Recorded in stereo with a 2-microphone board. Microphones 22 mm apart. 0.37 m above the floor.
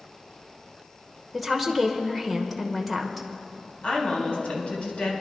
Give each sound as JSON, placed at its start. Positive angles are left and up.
{"t": 1.3, "sound": "a woman speaking", "side_deg": 0, "distance_m": 0.9}
{"t": 3.8, "sound": "a woman speaking", "side_deg": 60, "distance_m": 3.0}